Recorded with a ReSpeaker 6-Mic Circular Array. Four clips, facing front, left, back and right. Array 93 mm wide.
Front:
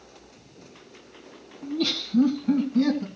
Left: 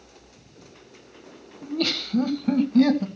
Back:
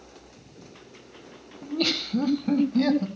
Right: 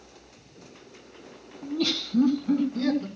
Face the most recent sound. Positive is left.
turn(degrees=110)